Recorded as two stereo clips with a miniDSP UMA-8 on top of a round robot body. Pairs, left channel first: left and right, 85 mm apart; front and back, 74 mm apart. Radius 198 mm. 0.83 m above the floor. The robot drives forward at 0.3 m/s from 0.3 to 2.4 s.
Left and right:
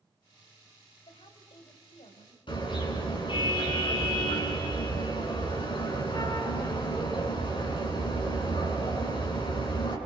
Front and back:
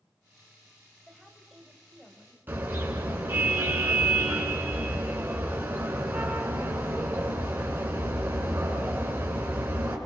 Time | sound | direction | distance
1.1 | a woman speaking | 85° left | 5 m
2.5 | a car horn | 115° left | 7 m